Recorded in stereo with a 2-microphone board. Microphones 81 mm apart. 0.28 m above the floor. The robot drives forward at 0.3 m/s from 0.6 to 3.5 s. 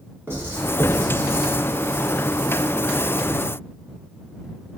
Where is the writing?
30° right (ahead or behind), 1.1 m; by 1.5 s 40° right (ahead or behind), 0.9 m.